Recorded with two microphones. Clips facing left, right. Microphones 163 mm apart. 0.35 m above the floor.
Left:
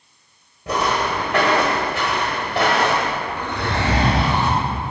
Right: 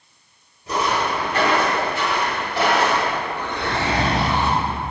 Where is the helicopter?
No helicopter in this recording.